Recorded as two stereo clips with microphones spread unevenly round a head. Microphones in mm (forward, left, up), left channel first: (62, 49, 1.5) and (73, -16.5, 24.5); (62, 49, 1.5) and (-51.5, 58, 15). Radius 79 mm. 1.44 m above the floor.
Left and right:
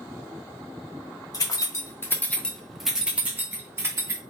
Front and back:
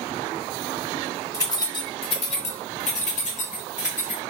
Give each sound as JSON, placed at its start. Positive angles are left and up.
{"t": 1.3, "sound": "keys jangling", "azimuth_deg": 60, "distance_m": 0.8}